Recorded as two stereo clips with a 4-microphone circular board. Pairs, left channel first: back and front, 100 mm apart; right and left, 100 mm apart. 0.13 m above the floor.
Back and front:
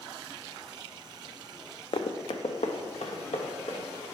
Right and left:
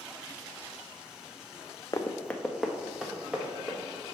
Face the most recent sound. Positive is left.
turn(degrees=160)